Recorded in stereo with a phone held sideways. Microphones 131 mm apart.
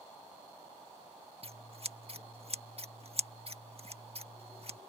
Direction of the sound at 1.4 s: 50° right (ahead or behind).